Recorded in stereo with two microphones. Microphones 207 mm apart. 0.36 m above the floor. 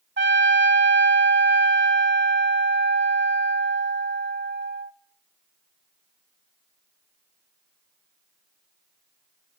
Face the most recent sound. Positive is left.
turn(degrees=-60)  # may be behind; listen again after turning